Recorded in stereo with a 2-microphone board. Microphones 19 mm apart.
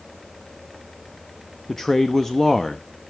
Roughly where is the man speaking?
Left.